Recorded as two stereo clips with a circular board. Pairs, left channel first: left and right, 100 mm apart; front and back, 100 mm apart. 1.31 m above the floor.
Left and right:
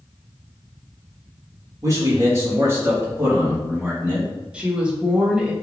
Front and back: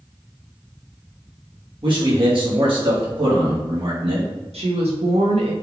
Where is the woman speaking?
170° right, 1.6 m.